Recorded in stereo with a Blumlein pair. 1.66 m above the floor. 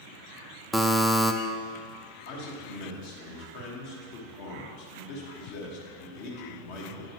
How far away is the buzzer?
About 0.5 m.